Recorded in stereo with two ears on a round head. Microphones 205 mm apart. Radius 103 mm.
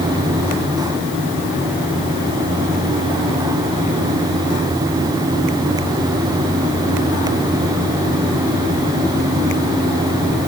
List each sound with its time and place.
Only background noise.